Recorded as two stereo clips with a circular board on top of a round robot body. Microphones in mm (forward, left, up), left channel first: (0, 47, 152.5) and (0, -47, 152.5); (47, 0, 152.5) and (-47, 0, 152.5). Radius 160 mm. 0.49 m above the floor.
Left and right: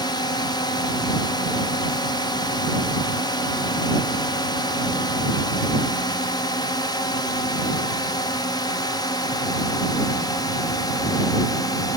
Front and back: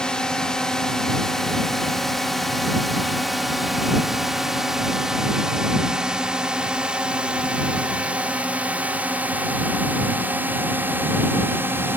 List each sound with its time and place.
0.0 s a drone: 80° left; by 12.0 s 120° left